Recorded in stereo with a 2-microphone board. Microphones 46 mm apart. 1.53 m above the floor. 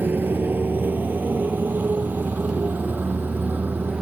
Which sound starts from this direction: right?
A motorcycle, at 0.0 s.